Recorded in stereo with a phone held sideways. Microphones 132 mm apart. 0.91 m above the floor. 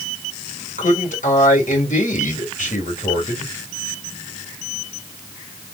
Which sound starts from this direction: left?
A man speaking, at 0.8 s.